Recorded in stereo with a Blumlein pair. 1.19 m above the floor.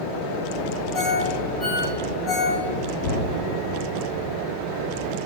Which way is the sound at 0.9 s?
20° left.